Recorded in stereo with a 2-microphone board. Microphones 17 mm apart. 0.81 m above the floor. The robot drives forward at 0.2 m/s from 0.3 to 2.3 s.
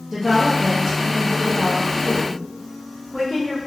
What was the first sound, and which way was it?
A woman speaking, 20° right (ahead or behind).